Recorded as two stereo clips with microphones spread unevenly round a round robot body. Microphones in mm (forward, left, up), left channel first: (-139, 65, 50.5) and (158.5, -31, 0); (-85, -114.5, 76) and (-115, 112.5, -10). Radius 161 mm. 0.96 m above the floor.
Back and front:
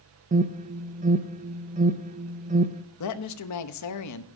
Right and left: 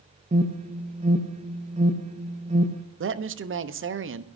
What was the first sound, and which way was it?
An alarm, 45° left.